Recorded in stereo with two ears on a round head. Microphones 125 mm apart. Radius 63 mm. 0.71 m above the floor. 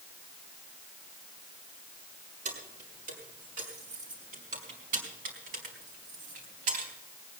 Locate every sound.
2.5 s keys jangling: 60° right (ahead or behind), 6 m; by 6.9 s 65° right (ahead or behind), 3.5 m